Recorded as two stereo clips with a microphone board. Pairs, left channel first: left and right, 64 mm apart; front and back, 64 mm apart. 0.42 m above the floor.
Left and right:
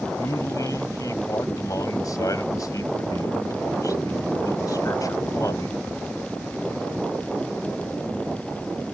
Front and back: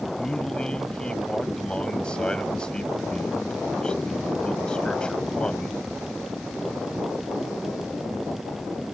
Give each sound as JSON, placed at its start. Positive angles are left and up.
{"t": 0.2, "sound": "a man speaking", "azimuth_deg": 75}